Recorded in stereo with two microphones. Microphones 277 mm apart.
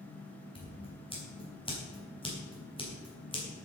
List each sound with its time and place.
0.6 s scissors: 15° left (ahead or behind), 4 m